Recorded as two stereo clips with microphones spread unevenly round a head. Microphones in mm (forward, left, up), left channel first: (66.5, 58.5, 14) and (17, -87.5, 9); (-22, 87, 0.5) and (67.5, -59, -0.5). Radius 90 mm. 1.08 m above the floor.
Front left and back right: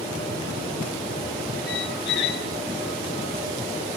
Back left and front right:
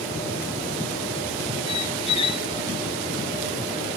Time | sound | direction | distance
1.7 | a squeak | 60° left | 1.6 m